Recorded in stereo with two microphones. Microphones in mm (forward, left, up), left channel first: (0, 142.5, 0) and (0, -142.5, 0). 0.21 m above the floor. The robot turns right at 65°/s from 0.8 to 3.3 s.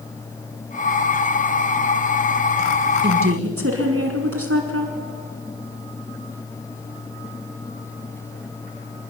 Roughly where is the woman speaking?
Right.